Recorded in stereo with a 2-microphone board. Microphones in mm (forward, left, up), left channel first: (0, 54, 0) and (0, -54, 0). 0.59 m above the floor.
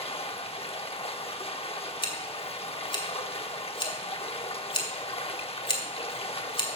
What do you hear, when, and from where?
0.0 s running water: 60° left (ahead or behind), 0.8 m
2.0 s scissors: 50° left (ahead or behind), 1.8 m